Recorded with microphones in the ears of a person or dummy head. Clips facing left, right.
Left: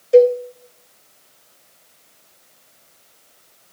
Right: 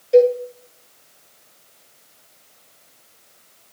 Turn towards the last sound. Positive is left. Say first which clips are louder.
# left 2 dB
turn(degrees=5)  # may be behind; listen again after turning